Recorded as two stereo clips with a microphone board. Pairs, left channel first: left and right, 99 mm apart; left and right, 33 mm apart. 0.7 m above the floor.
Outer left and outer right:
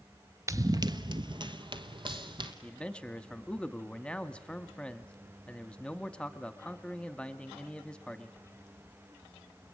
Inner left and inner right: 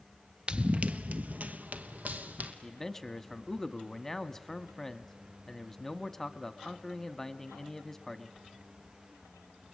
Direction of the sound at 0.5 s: 30° right (ahead or behind).